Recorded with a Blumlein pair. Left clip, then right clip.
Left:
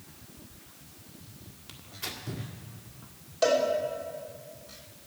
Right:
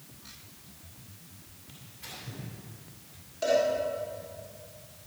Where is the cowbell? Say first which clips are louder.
Left 1 dB; 65° left, 4 m.